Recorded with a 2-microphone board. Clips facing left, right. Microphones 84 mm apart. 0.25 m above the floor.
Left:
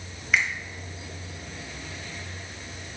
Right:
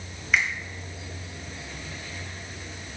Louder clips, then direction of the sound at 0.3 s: Even; centre (ahead or behind).